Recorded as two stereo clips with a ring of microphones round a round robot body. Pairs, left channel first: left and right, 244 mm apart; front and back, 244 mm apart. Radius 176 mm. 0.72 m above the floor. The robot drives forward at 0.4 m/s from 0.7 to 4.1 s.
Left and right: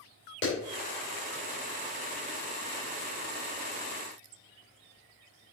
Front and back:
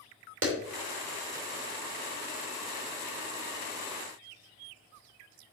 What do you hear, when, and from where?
0.4 s a clap: 145° left, 3 m